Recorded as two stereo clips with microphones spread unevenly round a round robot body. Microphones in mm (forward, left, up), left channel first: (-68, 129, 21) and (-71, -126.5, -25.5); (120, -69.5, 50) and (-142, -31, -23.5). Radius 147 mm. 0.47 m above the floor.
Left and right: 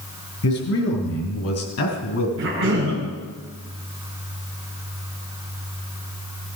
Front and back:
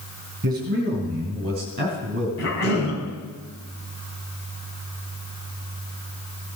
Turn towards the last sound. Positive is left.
turn(degrees=-40)